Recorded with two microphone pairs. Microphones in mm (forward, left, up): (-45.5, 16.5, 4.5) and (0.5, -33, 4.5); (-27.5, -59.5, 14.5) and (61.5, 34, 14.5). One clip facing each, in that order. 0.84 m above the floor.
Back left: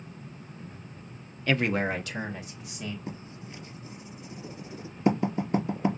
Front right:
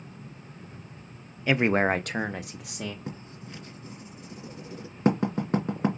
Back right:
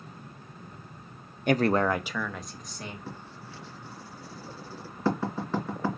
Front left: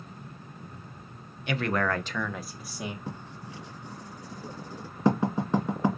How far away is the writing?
About 1.8 m.